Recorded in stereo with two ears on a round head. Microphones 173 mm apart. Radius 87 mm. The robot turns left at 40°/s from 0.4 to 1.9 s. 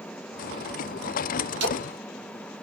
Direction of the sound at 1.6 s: 65° right (ahead or behind).